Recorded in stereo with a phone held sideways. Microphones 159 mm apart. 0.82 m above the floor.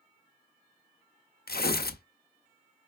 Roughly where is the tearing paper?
Left.